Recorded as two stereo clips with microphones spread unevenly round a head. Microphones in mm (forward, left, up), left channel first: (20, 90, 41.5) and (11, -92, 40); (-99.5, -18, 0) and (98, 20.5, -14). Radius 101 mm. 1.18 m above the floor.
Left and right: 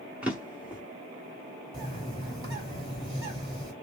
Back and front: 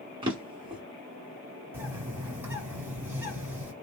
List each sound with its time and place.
0.2 s a drawer: 15° right, 0.8 m
1.7 s a bird: 60° right, 1.0 m